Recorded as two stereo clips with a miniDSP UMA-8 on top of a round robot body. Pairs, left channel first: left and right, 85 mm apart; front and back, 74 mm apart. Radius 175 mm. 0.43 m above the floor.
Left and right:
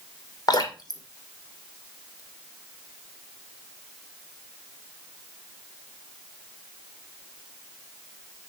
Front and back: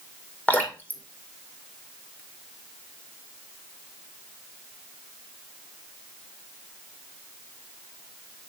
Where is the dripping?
65° left, 1.8 m.